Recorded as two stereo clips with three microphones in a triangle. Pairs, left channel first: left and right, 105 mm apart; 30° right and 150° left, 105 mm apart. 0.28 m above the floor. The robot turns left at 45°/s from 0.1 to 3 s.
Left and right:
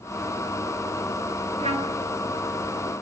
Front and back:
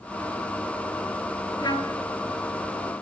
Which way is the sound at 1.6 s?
75° right.